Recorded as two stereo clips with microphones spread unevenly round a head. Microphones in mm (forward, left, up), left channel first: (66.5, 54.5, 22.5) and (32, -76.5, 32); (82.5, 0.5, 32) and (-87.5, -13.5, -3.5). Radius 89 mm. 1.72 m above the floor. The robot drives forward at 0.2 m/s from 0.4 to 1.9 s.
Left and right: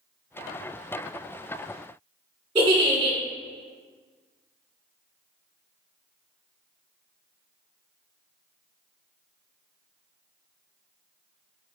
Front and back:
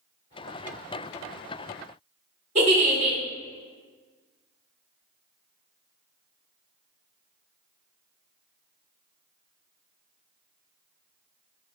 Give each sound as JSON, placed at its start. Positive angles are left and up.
{"t": 2.5, "sound": "a giggle", "azimuth_deg": -130, "distance_m": 1.5}